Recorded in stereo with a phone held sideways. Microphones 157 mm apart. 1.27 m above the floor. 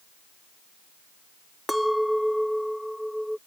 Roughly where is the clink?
Centre.